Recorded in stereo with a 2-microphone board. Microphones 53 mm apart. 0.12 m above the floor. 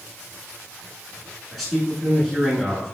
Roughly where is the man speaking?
Centre.